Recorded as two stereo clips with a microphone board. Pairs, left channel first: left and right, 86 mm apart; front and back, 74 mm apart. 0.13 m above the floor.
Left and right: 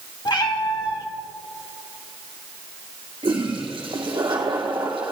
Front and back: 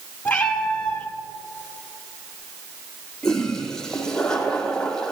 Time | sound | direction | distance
0.2 | a cat meowing | 70° left | 1.7 m
3.2 | a toilet flushing | 80° right | 2 m